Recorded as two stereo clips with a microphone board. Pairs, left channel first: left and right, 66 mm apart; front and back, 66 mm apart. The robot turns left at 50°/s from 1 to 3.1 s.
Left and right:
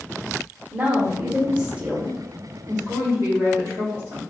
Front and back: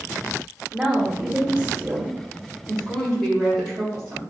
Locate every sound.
0.7 s a woman speaking: 110° right, 0.9 m; by 2.3 s 175° right, 0.9 m
2.7 s a woman speaking: 70° right, 1.5 m; by 4.2 s 90° right, 1.5 m